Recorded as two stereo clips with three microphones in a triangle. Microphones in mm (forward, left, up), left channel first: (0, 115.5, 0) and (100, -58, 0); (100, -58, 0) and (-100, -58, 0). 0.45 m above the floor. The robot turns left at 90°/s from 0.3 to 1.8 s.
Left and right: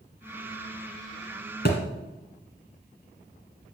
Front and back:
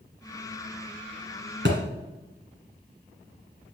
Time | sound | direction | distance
1.6 | a thud | 155° left | 1.4 m